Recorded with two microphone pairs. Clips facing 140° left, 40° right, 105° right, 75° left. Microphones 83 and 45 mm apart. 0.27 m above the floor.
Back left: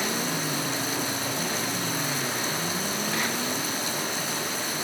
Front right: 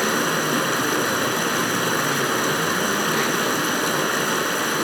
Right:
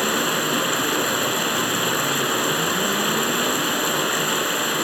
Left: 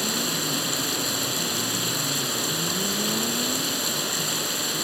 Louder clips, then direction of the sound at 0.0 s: Front right 8 dB, right 7 dB; 50° right.